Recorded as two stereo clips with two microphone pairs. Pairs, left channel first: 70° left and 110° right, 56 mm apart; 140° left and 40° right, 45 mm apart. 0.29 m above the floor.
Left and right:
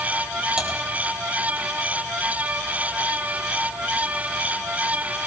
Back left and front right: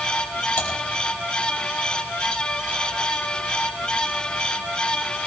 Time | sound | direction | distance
0.6 | typing on a keyboard | 175° left | 5 m